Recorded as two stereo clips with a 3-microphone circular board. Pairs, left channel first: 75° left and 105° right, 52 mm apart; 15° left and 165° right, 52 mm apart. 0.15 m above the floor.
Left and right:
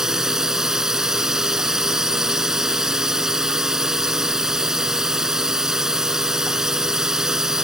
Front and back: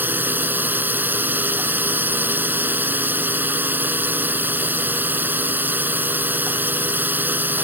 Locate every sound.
0.0 s a drone: 175° right